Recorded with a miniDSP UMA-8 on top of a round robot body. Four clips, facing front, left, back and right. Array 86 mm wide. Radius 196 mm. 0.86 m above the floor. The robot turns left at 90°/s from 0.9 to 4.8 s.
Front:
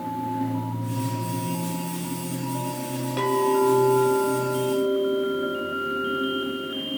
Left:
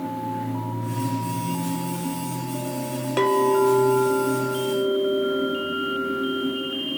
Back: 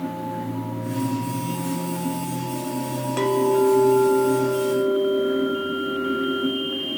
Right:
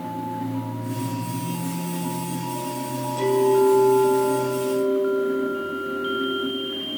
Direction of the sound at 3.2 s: 105° left.